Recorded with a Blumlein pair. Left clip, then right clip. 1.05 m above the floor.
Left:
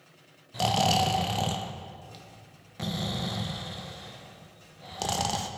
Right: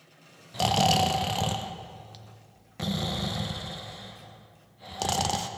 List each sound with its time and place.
0.5 s snoring: 5° right, 0.6 m